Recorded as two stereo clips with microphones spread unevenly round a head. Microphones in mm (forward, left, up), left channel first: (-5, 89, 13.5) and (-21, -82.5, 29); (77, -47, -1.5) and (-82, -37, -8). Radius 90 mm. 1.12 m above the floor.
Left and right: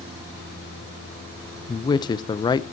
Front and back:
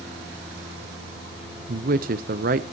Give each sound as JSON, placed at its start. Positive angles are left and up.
{"t": 1.7, "sound": "a man speaking", "azimuth_deg": 145, "distance_m": 0.6}